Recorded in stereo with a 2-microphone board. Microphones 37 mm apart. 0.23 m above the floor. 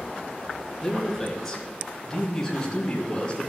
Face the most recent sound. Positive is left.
turn(degrees=25)  # may be behind; listen again after turning